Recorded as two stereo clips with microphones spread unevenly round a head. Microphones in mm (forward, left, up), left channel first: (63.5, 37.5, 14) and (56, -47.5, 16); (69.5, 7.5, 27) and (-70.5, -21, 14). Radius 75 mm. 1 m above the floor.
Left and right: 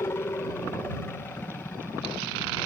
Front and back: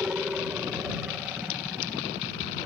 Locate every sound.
0.0 s a helicopter: 120° left; by 2.7 s 130° left